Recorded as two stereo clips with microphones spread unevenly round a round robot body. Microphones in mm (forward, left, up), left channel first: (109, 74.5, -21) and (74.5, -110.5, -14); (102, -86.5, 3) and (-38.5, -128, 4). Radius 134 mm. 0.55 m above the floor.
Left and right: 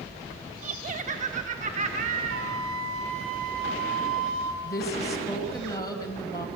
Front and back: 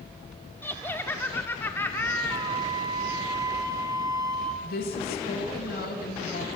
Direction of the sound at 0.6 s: 55° right.